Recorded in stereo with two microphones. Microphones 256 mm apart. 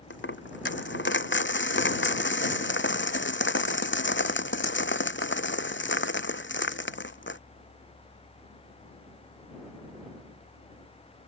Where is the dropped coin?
45° left (ahead or behind).